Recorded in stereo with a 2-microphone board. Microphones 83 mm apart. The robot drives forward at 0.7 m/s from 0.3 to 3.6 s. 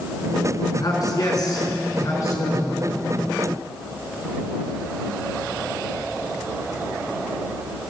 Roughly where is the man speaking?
Left.